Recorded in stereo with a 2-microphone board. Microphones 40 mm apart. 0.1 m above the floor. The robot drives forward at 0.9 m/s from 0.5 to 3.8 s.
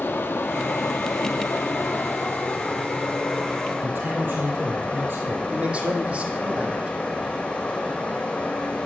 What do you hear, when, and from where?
0.0 s running water: 60° left (ahead or behind), 1.6 m; by 8.9 s 30° left (ahead or behind), 3 m
3.8 s a man speaking: 60° right (ahead or behind), 2.5 m
5.5 s a man speaking: 30° right (ahead or behind), 3.5 m